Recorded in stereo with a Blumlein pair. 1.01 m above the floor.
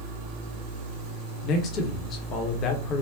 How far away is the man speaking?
About 0.7 m.